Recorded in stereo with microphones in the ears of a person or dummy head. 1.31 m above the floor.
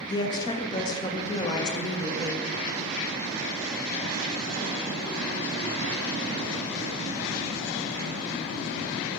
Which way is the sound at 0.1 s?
25° left (ahead or behind).